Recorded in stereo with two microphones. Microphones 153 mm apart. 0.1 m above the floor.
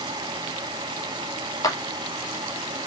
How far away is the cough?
No cough in this recording.